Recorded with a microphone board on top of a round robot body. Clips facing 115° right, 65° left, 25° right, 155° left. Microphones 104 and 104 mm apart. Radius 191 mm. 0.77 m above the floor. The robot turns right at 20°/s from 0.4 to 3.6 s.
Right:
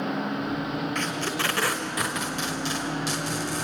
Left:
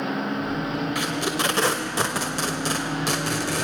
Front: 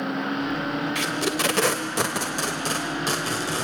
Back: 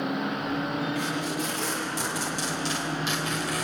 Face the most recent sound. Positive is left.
turn(degrees=40)